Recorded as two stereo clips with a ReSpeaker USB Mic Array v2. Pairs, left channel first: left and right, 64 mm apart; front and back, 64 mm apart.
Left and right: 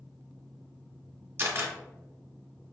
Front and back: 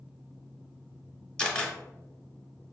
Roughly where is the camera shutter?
Right.